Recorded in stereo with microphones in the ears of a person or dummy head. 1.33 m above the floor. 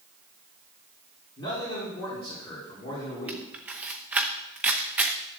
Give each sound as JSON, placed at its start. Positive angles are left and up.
{"t": 1.4, "sound": "a man speaking", "side_deg": 25, "distance_m": 4.0}
{"t": 3.3, "sound": "a camera shutter", "side_deg": -10, "distance_m": 0.7}